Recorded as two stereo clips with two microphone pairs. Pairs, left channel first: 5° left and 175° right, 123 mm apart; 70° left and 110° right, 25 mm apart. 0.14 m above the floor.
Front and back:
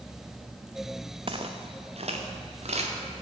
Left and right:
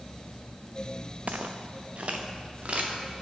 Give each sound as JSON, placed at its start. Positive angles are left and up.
{"t": 1.3, "sound": "footsteps", "azimuth_deg": -135, "distance_m": 0.6}